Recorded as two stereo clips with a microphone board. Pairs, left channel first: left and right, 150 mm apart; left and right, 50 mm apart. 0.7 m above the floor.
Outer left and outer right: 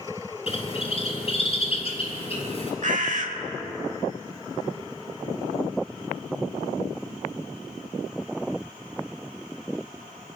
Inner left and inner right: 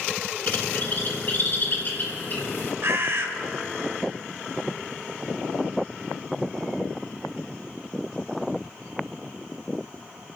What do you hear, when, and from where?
0.5 s a bird: 40° left (ahead or behind), 2.5 m
2.8 s a bird: 60° right (ahead or behind), 1.4 m